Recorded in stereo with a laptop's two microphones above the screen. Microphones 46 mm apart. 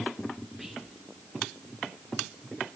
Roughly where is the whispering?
Centre.